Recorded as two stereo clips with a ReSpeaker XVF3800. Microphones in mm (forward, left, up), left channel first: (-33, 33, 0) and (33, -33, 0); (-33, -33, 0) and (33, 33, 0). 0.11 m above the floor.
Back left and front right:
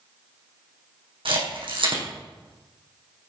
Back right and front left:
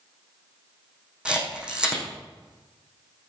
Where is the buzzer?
I don't hear a buzzer.